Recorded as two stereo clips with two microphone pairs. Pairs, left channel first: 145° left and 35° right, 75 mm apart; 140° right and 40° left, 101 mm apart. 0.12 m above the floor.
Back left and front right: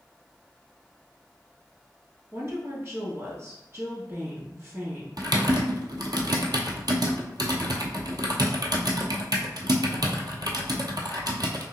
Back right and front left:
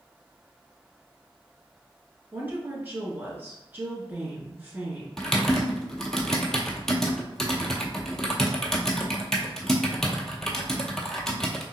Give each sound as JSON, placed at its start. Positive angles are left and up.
{"t": 2.3, "sound": "a woman speaking", "azimuth_deg": -15, "distance_m": 1.3}
{"t": 5.2, "sound": "typing on a keyboard", "azimuth_deg": -55, "distance_m": 0.7}